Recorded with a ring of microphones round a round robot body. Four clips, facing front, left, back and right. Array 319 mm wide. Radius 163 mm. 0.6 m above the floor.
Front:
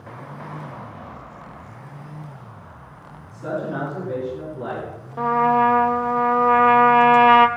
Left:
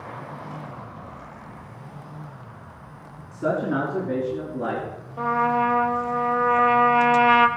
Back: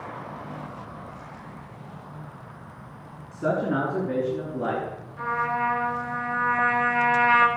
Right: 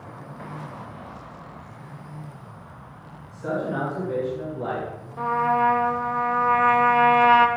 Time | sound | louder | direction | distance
3.3 | a man speaking | left 3 dB, back 2 dB | 130° left | 5.5 m
5.2 | a trumpet | even, front 9 dB | 5° left | 1.7 m